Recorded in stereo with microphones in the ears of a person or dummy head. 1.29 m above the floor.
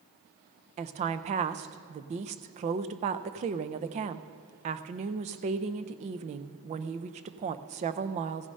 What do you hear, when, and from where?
0.8 s a woman speaking: 35° right (ahead or behind), 0.5 m